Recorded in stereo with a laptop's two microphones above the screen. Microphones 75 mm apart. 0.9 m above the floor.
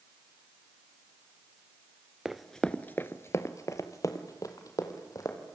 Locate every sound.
2.2 s running footsteps: 10° right (ahead or behind), 0.9 m; by 5.4 s 50° left (ahead or behind), 3 m